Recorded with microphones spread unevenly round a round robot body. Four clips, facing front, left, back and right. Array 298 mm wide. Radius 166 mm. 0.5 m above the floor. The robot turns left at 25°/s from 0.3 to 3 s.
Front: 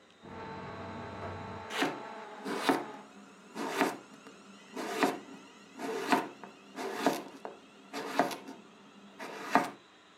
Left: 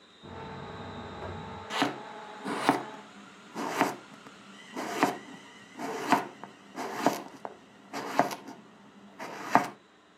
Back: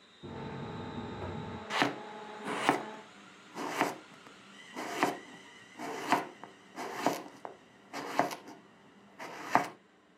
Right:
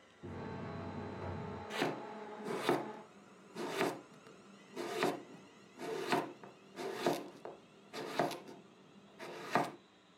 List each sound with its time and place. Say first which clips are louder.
0.2 s a buzzer: left 3 dB, back 1 dB; 155° right, 2 m; by 1.6 s 175° left, 2 m
1.7 s chopping: left 7 dB, back 2 dB; 120° left, 1.1 m; by 9.8 s 85° left, 1.1 m